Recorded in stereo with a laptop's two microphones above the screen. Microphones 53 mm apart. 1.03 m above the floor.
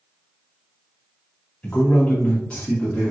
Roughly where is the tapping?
I don't hear tapping.